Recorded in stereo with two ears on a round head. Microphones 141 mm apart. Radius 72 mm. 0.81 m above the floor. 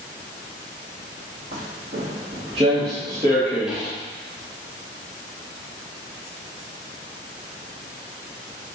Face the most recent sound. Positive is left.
turn(degrees=5)  # may be behind; listen again after turning